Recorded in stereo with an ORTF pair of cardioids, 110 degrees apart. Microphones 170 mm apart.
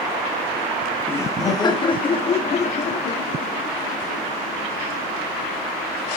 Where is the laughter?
10° left, 1.4 m; by 5.7 s 60° left, 3.5 m.